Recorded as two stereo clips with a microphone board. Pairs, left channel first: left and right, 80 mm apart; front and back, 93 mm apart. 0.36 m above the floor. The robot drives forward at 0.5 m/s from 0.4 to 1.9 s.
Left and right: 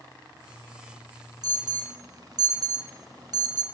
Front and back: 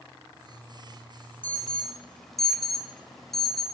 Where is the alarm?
70° right, 1.1 m; by 3.6 s 85° right, 1.1 m.